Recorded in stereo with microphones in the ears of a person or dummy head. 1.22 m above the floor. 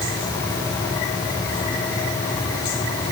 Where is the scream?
No scream in this recording.